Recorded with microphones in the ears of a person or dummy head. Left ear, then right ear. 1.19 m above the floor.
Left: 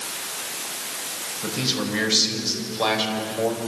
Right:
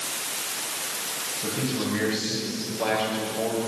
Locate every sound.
1.4 s a man speaking: 50° left (ahead or behind), 7 m; by 3.6 s 40° left (ahead or behind), 6 m